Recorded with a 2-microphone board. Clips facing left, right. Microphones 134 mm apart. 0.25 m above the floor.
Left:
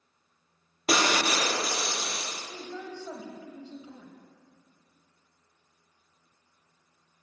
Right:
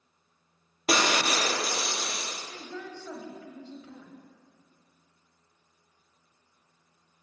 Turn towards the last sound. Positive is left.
turn(degrees=20)  # may be behind; listen again after turning